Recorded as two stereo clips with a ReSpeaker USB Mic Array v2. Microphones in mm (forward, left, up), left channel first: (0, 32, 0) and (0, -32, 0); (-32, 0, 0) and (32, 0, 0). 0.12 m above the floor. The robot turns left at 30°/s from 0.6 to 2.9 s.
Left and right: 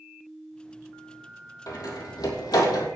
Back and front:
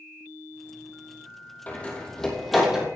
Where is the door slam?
115° left, 3 m; by 2.9 s 80° left, 3 m.